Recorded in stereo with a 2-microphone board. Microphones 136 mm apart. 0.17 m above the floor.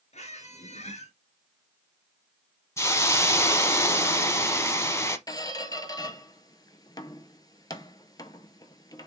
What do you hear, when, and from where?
0.1 s a squeak: 60° left (ahead or behind), 0.8 m
2.8 s a hiss: 20° left (ahead or behind), 0.7 m
5.3 s a squeak: 30° left (ahead or behind), 0.5 m